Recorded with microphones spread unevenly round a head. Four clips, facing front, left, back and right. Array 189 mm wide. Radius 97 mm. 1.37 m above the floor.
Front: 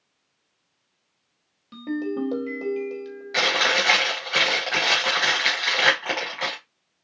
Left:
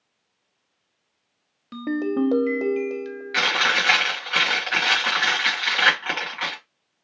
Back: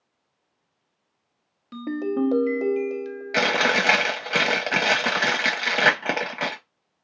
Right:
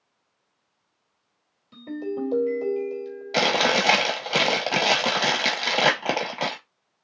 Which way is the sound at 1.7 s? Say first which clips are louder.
Left 6 dB, back 2 dB; 90° left.